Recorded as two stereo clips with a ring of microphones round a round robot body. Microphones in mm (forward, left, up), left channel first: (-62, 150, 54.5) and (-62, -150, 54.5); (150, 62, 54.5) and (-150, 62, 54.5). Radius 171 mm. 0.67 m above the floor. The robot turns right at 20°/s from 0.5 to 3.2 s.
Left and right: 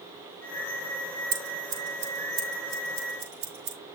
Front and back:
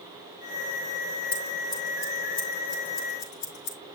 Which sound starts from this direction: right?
Scissors, at 1.3 s.